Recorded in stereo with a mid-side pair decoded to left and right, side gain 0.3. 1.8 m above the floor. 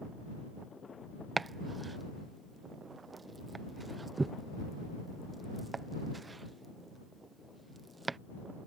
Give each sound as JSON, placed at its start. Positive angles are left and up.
{"t": 1.4, "sound": "chopping", "azimuth_deg": -35}